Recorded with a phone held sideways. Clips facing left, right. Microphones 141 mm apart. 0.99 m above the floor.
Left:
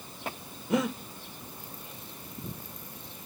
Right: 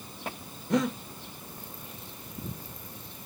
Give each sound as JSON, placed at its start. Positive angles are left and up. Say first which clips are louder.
{"t": 0.7, "sound": "breathing", "louder": "right 1 dB", "side_deg": 5, "distance_m": 0.8}